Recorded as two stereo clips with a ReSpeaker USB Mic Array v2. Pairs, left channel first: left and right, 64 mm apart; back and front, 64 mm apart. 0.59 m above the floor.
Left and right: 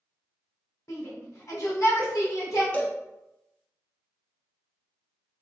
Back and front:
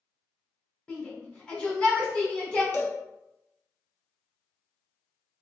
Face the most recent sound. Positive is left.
turn(degrees=145)